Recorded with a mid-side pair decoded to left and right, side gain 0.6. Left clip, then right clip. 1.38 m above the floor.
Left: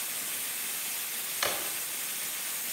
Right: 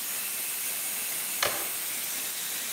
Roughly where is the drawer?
Ahead.